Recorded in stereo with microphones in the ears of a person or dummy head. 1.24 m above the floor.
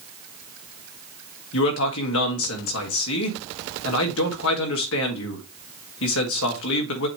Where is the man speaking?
70° left (ahead or behind), 1.7 m.